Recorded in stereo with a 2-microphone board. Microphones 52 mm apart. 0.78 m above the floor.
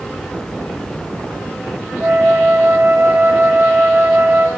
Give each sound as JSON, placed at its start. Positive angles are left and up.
{"t": 2.0, "sound": "a flute", "side_deg": -45, "distance_m": 1.6}